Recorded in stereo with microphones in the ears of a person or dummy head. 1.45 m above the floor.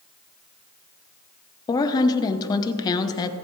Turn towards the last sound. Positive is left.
turn(degrees=20)  # may be behind; listen again after turning